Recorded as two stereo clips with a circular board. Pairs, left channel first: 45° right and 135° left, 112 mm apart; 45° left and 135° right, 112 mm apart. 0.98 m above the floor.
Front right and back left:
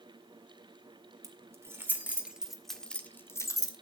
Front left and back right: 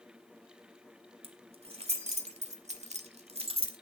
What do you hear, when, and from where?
1.2 s keys jangling: 165° right, 2 m; by 3.8 s 100° right, 1.5 m